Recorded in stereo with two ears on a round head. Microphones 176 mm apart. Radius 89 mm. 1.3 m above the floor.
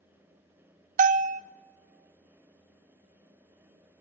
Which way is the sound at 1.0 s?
40° right (ahead or behind).